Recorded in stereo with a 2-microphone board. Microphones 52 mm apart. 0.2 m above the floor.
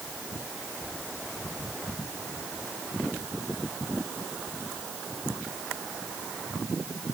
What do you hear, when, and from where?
Only background noise.